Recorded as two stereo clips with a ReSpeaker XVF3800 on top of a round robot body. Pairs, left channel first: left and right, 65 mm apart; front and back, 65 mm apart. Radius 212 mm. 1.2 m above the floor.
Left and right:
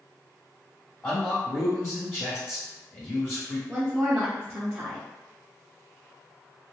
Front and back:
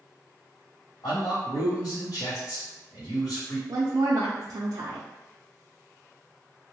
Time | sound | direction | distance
1.0 | a man speaking | 20° left | 1.2 m
3.7 | a woman speaking | 165° right | 0.5 m